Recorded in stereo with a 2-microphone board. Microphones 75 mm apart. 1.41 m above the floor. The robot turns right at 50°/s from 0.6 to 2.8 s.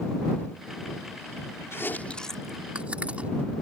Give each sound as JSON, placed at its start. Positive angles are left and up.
{"t": 1.7, "sound": "chewing", "side_deg": 40}